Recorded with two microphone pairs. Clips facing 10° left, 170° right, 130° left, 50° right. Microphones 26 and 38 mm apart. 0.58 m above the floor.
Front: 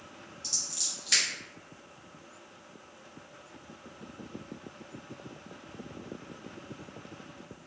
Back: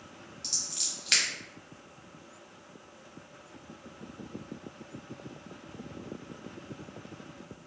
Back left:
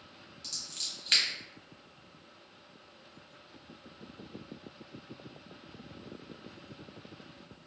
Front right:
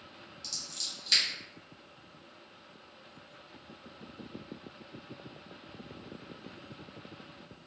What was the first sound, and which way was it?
Scissors, 175° left.